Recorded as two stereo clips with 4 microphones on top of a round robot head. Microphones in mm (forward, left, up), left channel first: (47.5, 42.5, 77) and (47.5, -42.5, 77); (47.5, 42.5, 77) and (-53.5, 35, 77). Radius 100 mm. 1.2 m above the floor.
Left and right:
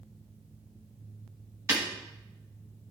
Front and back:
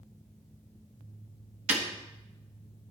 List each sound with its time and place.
1.7 s breaking glass: 150° right, 1.3 m